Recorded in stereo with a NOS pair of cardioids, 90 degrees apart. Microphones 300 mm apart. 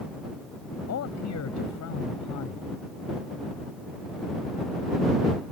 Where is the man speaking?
60° left; by 2.8 s 75° left.